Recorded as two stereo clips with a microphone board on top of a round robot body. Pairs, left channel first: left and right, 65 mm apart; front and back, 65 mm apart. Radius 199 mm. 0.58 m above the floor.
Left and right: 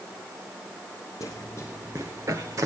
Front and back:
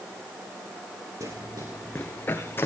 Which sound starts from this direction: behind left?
Running footsteps, at 1.2 s.